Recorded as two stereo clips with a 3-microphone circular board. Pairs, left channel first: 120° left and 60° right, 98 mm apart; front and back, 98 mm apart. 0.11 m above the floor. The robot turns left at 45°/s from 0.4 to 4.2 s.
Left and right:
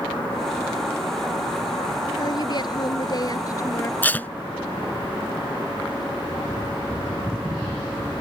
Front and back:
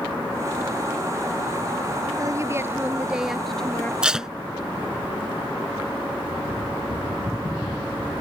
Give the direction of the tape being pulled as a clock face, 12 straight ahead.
8 o'clock.